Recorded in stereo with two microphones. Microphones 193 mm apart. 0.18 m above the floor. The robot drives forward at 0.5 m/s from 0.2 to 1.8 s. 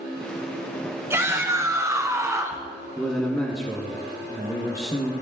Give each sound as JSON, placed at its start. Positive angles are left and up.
{"t": 1.1, "sound": "a shout", "side_deg": -15, "distance_m": 1.7}
{"t": 3.0, "sound": "a man speaking", "side_deg": 15, "distance_m": 2.0}